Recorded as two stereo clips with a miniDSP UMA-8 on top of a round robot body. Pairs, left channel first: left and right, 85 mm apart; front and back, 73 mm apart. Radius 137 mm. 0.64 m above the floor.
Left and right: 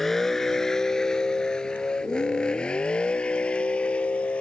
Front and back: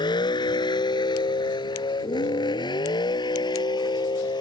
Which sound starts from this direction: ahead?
A vehicle, at 0.0 s.